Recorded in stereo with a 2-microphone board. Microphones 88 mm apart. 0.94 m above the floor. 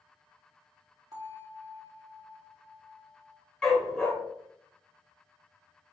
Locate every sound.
1.1 s a bell: 50° right (ahead or behind), 1.8 m
3.6 s a dog barking: 10° left (ahead or behind), 1.4 m